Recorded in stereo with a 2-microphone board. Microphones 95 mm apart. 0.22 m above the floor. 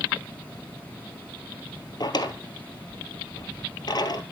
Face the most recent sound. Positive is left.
turn(degrees=55)  # may be behind; listen again after turning